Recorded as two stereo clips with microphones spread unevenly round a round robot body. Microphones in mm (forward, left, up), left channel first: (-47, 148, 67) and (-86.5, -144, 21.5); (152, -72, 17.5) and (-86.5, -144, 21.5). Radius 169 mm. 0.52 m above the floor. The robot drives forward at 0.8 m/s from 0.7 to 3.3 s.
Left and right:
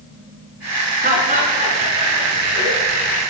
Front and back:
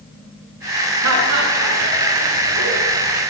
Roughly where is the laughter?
Behind.